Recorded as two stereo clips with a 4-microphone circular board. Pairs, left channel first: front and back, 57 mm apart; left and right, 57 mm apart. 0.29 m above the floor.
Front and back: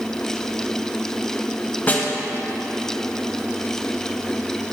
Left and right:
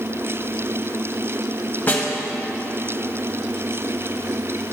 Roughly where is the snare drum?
Ahead left.